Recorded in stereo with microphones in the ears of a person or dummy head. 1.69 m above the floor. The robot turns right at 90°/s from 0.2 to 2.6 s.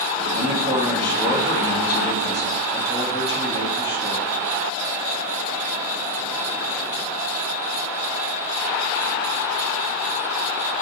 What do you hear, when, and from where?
0.3 s a man speaking: 50° right, 1.5 m; by 4.2 s 150° left, 1.5 m